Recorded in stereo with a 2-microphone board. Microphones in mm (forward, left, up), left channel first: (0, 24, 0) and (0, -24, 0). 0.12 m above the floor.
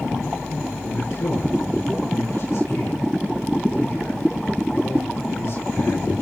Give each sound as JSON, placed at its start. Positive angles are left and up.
{"t": 0.8, "sound": "a man speaking", "side_deg": 80, "distance_m": 7.0}